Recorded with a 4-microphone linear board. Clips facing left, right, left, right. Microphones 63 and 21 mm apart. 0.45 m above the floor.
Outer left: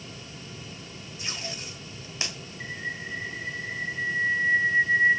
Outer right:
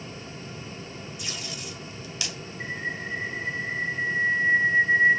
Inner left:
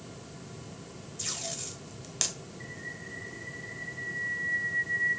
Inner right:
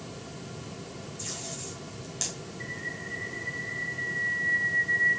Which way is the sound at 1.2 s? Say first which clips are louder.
Outer left 3 dB, inner left 3 dB; 35° left (ahead or behind).